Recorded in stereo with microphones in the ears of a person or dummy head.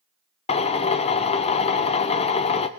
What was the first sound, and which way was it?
A drill, 40° left (ahead or behind).